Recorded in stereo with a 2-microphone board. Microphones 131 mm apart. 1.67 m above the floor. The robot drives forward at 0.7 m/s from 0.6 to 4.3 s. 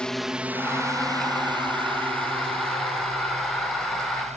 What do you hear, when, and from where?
0.0 s a drone: 5° left (ahead or behind); by 4.4 s 55° right (ahead or behind)